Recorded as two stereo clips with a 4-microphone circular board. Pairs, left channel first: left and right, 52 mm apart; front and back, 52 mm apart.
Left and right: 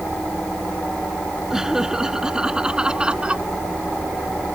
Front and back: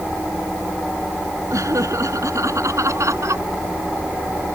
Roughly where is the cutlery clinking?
I don't hear cutlery clinking.